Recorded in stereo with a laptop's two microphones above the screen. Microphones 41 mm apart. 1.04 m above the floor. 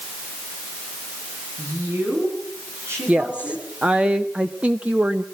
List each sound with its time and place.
1.6 s a woman speaking: 80° right, 9 m
3.1 s a woman speaking: 30° right (ahead or behind), 0.6 m